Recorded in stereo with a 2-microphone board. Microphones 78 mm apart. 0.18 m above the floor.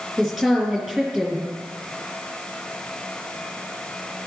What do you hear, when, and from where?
0.2 s a woman speaking: 10° right (ahead or behind), 4 m